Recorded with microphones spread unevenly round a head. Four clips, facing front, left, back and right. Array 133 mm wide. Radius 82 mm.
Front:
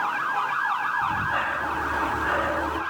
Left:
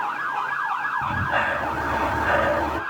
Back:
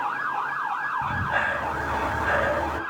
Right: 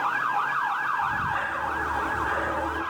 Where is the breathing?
125° left, 1.4 m.